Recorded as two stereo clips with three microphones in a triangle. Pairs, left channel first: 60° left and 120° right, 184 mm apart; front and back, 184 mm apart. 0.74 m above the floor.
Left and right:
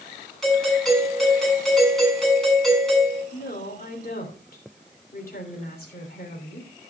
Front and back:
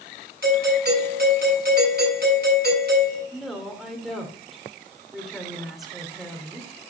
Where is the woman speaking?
90° left, 3 m.